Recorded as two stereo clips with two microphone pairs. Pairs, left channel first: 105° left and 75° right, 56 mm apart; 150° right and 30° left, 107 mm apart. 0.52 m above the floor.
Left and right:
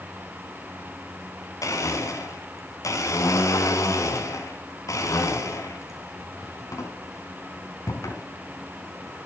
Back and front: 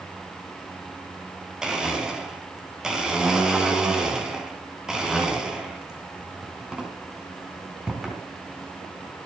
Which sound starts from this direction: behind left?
A blender, at 1.6 s.